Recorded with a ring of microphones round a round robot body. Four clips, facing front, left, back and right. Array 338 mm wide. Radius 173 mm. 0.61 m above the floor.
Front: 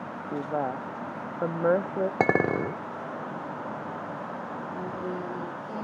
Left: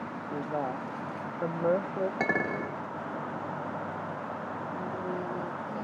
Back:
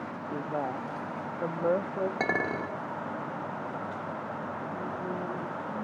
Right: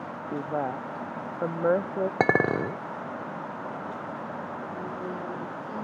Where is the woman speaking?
40° right, 0.6 m.